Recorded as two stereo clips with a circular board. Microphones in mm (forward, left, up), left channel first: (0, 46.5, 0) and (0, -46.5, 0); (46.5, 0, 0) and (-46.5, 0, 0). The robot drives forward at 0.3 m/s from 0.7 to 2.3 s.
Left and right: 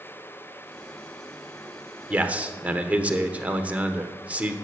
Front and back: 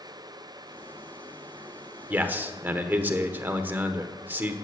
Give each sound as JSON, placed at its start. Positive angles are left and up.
{"t": 2.1, "sound": "a man speaking", "azimuth_deg": -135, "distance_m": 1.1}